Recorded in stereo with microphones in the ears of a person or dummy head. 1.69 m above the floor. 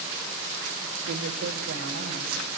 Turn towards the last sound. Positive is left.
turn(degrees=-80)